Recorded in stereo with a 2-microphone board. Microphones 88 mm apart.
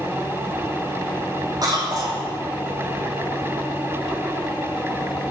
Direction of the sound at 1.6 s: 50° right (ahead or behind).